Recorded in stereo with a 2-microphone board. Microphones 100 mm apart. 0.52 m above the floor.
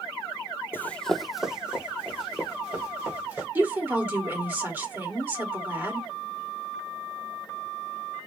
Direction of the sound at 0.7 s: 20° left (ahead or behind).